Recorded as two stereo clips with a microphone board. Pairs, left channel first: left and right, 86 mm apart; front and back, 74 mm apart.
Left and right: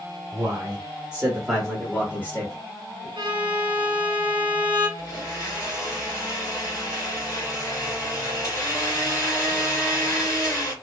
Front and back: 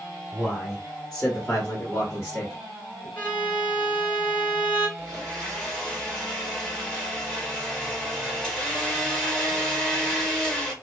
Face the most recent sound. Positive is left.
turn(degrees=75)